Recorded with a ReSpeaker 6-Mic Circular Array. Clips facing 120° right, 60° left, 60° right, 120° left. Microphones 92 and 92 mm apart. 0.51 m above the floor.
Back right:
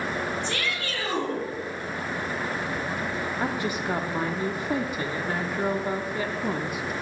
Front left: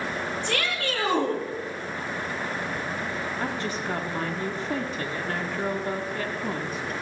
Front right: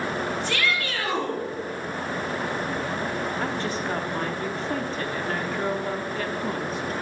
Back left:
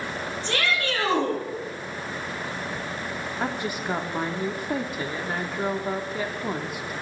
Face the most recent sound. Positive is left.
turn(degrees=180)